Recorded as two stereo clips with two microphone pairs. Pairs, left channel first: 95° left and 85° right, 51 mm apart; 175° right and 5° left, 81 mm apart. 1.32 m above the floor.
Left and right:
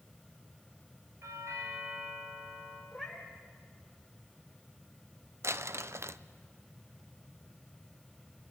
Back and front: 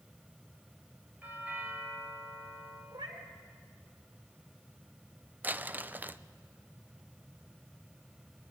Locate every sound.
1.2 s a doorbell: 65° right, 8.5 m
2.9 s a cat meowing: 5° left, 3.5 m
5.4 s crumpling: 65° right, 0.6 m